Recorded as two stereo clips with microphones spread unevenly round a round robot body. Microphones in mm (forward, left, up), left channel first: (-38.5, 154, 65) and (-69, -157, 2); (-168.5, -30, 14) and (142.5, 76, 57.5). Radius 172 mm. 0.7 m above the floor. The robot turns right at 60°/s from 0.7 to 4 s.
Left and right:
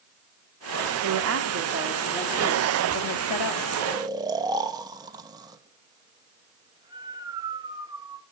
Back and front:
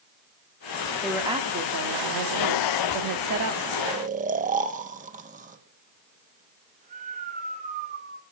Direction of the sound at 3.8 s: 55° right.